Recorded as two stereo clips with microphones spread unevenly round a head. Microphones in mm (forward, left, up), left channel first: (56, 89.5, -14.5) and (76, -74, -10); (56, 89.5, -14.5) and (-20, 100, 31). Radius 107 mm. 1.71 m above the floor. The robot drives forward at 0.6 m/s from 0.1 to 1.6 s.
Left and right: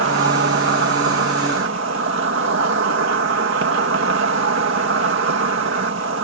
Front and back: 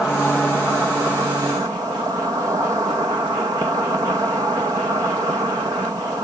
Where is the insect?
100° right; by 6.2 s 115° right.